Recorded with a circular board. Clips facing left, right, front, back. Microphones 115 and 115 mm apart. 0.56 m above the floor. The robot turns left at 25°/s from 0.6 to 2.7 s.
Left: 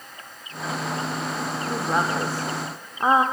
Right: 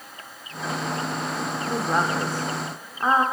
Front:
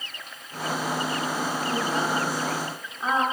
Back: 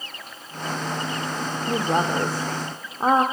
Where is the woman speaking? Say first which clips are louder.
Even, back 6 dB; 175° right, 1.1 m; by 3.2 s 160° left, 1.1 m.